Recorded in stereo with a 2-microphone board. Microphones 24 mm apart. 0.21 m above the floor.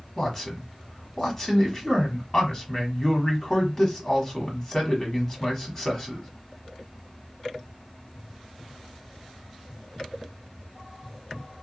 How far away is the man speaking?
About 1.4 m.